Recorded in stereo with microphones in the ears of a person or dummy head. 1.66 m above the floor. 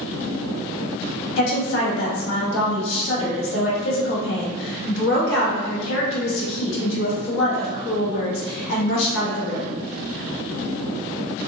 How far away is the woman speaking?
About 1.1 m.